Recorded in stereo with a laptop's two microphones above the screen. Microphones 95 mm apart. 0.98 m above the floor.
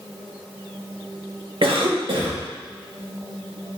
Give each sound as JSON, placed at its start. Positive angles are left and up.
{"t": 1.6, "sound": "a cough", "side_deg": -65, "distance_m": 1.3}